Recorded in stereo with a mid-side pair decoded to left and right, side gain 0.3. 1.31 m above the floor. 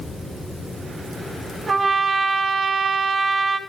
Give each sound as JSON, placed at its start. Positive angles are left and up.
{"t": 1.7, "sound": "a trumpet", "azimuth_deg": -55, "distance_m": 3.0}